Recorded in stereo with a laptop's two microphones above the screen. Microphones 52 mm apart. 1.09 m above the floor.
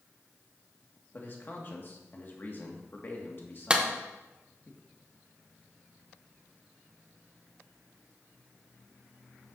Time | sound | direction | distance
1.1 | a man speaking | 40° left (ahead or behind) | 1.8 m
3.7 | a clap | 20° right (ahead or behind) | 0.7 m